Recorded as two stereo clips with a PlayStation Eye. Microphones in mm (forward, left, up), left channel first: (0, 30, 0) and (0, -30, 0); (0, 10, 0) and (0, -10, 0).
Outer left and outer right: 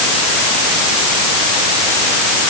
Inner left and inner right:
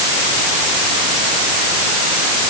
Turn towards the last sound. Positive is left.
No sound to turn to.